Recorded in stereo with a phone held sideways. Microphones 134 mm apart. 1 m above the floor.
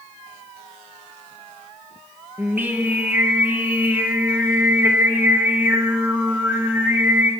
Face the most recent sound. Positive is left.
turn(degrees=-15)  # may be behind; listen again after turning